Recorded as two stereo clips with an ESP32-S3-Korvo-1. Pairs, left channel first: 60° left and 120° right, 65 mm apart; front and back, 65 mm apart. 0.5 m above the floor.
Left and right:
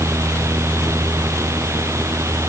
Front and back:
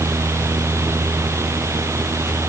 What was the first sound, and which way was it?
Only background noise.